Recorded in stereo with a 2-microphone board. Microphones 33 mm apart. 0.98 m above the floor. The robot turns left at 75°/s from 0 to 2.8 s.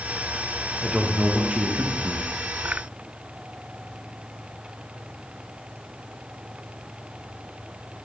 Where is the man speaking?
10° right, 0.8 m; by 2.3 s 125° right, 0.8 m.